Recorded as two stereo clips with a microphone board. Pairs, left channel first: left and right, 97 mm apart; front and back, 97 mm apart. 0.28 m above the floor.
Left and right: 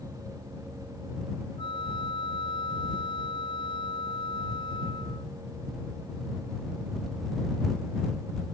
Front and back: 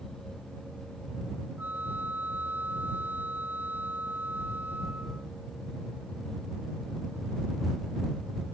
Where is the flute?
110° left.